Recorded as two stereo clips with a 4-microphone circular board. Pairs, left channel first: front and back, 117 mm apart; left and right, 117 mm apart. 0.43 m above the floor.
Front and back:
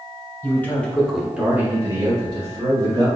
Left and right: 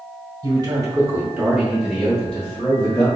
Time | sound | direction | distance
0.4 | a man speaking | 60° right | 1.2 m